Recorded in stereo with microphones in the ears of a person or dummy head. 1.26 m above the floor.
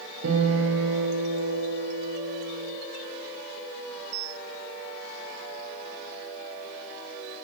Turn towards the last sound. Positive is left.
turn(degrees=-80)